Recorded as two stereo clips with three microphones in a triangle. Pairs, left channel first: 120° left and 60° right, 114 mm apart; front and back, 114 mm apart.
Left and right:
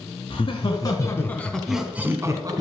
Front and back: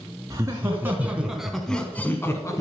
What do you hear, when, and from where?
0.3 s laughter: 125° left, 1.8 m; by 2.6 s 45° right, 1.5 m